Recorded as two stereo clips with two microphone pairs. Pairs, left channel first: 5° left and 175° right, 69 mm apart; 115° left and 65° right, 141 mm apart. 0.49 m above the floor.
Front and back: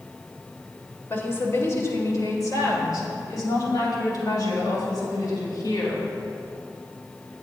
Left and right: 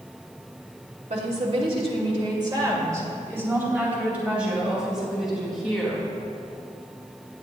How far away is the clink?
I don't hear a clink.